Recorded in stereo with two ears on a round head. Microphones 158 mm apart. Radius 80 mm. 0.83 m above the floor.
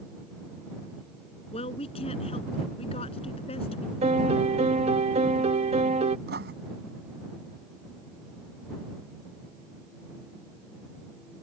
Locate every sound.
1.5 s a woman speaking: 30° left (ahead or behind)
4.0 s a piano: 35° right (ahead or behind)
6.3 s writing: 60° right (ahead or behind)